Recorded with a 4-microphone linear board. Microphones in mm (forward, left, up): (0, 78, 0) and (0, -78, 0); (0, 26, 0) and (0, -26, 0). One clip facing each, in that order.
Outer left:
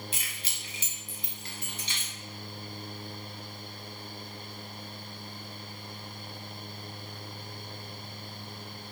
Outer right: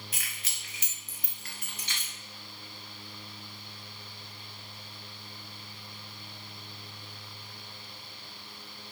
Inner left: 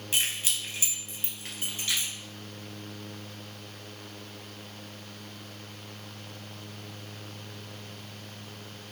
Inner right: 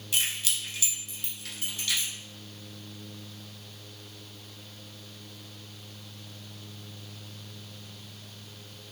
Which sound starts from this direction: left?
Keys jangling, at 0.1 s.